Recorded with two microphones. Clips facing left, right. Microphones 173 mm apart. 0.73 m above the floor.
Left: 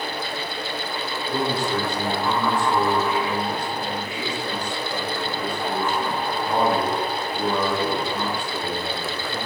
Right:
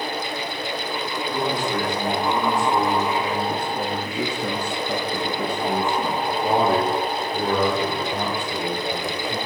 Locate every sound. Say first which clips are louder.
1.3 s a man speaking: left 1 dB; 15° left (ahead or behind), 2 m; by 9.4 s 50° right (ahead or behind), 3.5 m